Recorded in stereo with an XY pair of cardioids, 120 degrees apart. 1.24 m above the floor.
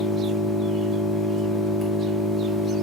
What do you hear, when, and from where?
0.0 s an engine running: 15° left, 1.0 m